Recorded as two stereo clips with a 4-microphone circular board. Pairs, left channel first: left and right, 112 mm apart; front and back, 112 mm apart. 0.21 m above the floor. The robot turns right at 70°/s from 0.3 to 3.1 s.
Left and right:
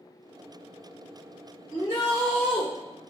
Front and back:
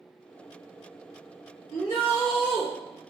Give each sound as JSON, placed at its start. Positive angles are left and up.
{"t": 1.7, "sound": "a shout", "azimuth_deg": -90, "distance_m": 1.4}